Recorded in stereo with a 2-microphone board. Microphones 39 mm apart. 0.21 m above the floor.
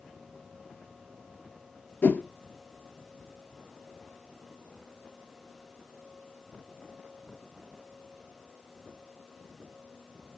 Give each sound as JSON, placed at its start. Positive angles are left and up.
{"t": 2.0, "sound": "a whoosh", "side_deg": 55, "distance_m": 0.6}